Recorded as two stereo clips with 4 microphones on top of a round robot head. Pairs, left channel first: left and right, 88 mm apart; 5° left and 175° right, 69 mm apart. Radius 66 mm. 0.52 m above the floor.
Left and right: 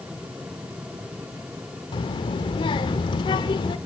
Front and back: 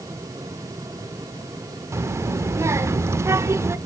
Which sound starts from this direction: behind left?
A child speaking, at 1.9 s.